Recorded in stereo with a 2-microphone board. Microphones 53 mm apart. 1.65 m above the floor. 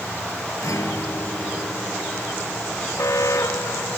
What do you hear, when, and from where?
0.6 s a guitar: 70° left (ahead or behind)
3.0 s an alarm: 75° left (ahead or behind)